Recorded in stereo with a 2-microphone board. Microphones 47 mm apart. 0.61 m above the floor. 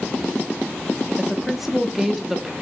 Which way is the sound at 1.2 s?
5° right (ahead or behind).